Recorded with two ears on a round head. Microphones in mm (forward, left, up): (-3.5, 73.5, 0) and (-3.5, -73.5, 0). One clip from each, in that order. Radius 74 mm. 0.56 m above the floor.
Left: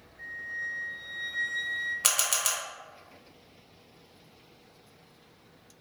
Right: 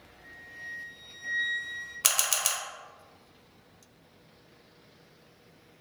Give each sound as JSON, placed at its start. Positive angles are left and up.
{"t": 0.2, "sound": "a flute", "side_deg": 15, "distance_m": 1.5}
{"t": 2.0, "sound": "a camera shutter", "side_deg": -10, "distance_m": 0.5}